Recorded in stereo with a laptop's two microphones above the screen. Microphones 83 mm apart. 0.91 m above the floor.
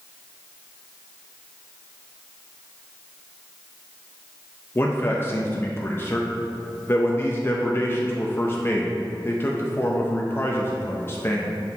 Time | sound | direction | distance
4.8 | a man speaking | 25° left (ahead or behind) | 0.5 m